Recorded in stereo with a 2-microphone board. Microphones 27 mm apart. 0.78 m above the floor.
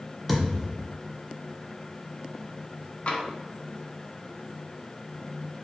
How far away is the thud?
About 1.2 m.